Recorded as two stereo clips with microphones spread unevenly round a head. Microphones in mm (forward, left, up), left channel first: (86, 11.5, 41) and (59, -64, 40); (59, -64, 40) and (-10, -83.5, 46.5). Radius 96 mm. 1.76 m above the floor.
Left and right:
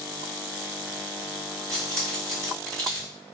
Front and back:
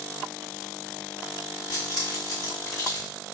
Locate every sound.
1.7 s keys jangling: 140° left, 1.8 m